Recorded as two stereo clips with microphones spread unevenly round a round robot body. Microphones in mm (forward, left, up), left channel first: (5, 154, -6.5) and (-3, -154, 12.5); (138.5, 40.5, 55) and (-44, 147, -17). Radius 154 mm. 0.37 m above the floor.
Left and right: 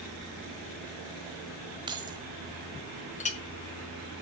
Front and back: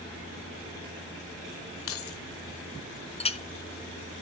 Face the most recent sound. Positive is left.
turn(degrees=40)